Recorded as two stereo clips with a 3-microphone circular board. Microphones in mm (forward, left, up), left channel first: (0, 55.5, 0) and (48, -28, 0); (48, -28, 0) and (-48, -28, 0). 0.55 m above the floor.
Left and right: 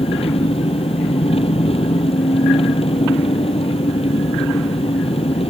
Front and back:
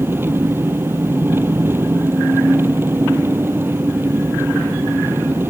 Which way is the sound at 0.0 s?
115° left.